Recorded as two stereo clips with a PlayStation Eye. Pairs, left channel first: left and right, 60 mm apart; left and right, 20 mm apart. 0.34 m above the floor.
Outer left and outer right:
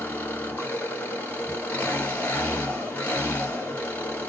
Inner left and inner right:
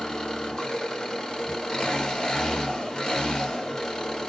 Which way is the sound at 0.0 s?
30° left (ahead or behind).